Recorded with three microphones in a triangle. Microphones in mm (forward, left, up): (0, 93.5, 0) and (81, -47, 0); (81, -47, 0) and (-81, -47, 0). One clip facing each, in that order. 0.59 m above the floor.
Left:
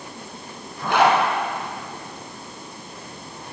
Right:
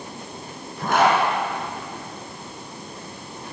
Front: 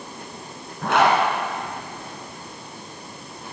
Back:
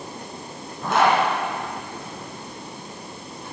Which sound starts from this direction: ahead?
A zipper, at 0.8 s.